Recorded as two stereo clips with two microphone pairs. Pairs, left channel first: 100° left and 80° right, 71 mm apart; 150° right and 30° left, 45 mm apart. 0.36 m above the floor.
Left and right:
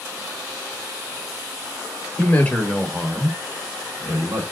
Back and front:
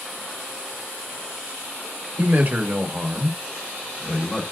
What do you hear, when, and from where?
2.2 s a man speaking: 50° left, 1.1 m; by 4.4 s 80° right, 1.2 m